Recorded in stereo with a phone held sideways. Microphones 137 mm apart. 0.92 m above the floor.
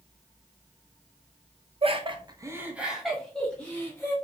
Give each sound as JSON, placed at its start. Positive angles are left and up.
{"t": 1.8, "sound": "laughter", "side_deg": -45, "distance_m": 0.6}